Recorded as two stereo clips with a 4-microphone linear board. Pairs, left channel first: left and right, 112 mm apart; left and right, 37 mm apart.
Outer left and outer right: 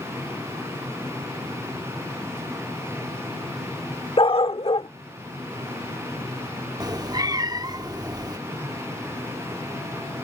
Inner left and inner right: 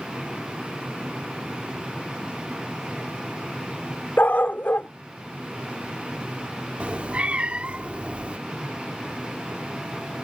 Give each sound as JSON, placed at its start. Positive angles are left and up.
{"t": 4.2, "sound": "a dog barking", "side_deg": 55}
{"t": 6.8, "sound": "a cat meowing", "side_deg": -35}